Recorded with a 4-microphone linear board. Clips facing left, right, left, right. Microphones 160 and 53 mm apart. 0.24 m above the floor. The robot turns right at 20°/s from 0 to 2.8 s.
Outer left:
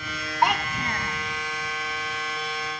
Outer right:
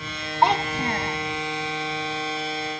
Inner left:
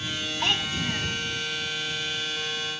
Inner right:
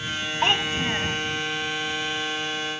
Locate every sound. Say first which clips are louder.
0.4 s a child speaking: outer right 4 dB, inner right 4 dB; 30° right (ahead or behind); by 1.2 s 40° right (ahead or behind)